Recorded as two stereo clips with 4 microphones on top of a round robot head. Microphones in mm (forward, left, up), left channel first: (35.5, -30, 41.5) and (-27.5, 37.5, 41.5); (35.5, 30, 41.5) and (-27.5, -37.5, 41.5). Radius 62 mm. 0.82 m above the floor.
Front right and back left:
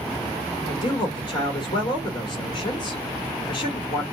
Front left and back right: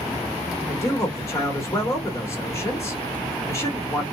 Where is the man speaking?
15° right, 1.0 m.